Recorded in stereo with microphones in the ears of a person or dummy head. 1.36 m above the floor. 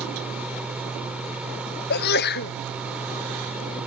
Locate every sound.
0.0 s a fan: 5° right (ahead or behind)
1.9 s a sneeze: 55° left (ahead or behind)